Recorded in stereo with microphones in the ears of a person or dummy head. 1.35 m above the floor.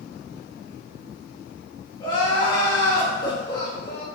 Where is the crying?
25° left (ahead or behind), 0.7 m.